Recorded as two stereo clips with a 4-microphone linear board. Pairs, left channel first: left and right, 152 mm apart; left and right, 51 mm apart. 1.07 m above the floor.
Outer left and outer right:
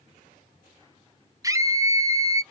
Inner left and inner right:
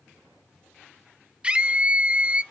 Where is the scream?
20° right (ahead or behind), 0.8 m.